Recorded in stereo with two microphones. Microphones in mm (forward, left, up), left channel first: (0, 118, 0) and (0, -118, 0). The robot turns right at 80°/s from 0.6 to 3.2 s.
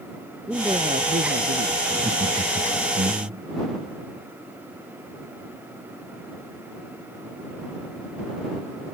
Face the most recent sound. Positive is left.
turn(degrees=-60)